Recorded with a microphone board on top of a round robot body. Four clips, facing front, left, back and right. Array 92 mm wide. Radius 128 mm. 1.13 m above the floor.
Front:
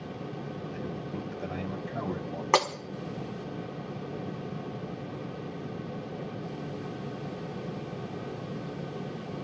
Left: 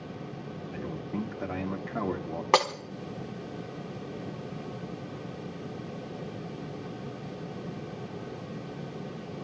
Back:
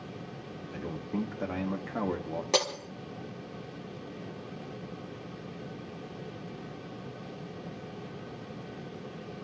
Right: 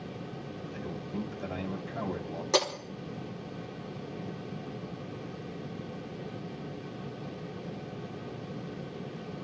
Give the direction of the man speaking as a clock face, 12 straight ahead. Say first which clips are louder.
Left 3 dB, back 5 dB; 7 o'clock.